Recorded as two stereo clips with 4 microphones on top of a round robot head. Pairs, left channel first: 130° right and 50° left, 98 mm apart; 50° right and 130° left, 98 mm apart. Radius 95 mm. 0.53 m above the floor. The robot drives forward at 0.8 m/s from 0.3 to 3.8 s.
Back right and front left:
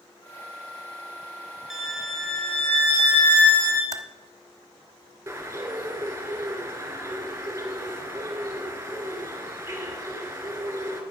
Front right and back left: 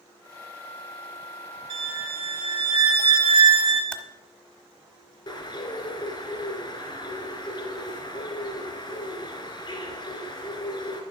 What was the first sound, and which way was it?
A violin, 135° left.